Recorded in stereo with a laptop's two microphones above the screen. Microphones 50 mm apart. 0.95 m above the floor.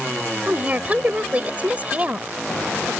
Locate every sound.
0.5 s a woman speaking: 30° right (ahead or behind)